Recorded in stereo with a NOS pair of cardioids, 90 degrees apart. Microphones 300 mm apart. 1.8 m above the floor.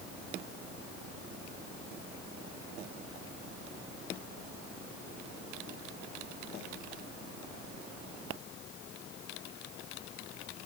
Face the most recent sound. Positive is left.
No sound to turn to.